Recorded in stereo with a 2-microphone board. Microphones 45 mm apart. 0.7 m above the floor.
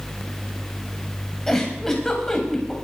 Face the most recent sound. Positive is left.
turn(degrees=10)  # may be behind; listen again after turning